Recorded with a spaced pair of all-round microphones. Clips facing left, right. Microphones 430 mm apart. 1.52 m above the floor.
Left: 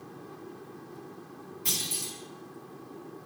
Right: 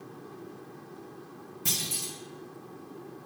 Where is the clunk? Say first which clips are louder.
Right 1 dB; 60° right (ahead or behind), 1.7 m.